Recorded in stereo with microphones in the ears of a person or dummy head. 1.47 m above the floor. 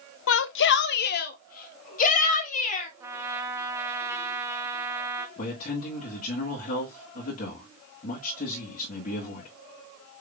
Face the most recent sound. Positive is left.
turn(degrees=50)  # may be behind; listen again after turning